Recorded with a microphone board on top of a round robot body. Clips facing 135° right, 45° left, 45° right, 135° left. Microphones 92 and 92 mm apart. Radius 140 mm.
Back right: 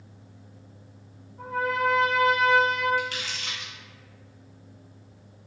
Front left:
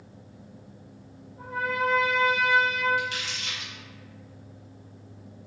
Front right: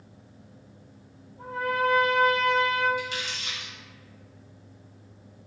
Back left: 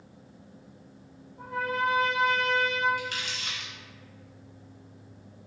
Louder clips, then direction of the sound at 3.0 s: Even, front right 2 dB; 175° left.